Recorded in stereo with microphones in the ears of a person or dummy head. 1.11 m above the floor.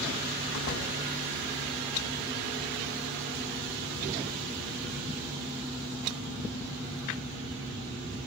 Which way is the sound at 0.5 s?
60° left (ahead or behind).